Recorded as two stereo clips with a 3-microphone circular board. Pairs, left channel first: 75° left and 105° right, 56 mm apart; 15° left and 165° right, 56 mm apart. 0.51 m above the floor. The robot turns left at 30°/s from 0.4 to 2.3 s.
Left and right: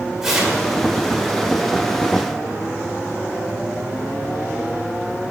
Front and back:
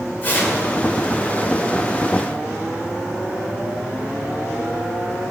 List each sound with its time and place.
0.2 s tearing paper: 25° right, 2 m; by 0.6 s 35° right, 2 m